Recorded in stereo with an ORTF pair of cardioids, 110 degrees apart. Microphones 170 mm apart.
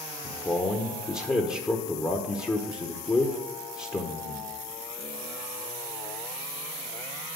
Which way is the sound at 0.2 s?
15° left.